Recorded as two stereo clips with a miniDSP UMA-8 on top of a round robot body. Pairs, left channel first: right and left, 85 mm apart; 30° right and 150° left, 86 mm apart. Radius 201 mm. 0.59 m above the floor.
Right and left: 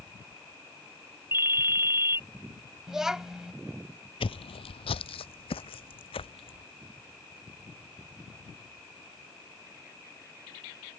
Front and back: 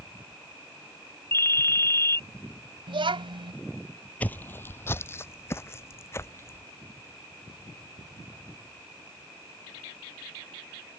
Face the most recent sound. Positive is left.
turn(degrees=-90)